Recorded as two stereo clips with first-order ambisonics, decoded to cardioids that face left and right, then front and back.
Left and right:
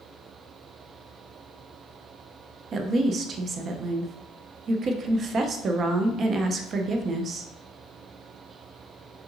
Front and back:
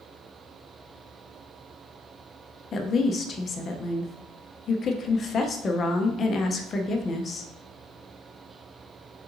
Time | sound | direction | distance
2.7 | a woman speaking | 45° right | 0.5 m